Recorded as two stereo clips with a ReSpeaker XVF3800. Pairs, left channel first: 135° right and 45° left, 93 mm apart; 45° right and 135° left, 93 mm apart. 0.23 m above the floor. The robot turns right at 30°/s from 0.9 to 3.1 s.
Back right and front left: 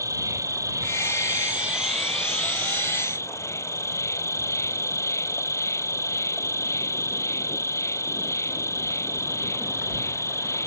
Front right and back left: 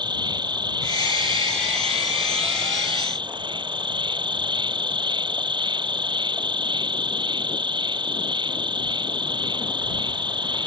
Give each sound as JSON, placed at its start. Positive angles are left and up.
{"t": 0.0, "sound": "an insect", "azimuth_deg": 100}